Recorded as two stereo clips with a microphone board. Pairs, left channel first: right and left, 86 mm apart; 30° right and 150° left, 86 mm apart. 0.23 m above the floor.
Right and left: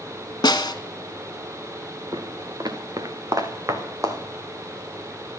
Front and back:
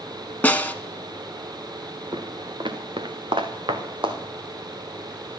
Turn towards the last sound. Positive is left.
turn(degrees=140)